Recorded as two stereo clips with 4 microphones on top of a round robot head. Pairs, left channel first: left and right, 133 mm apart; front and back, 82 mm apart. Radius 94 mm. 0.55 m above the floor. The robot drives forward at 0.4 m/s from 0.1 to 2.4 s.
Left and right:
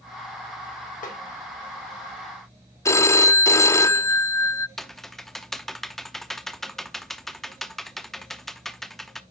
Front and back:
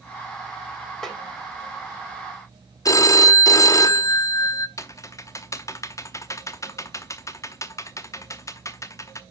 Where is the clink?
I don't hear a clink.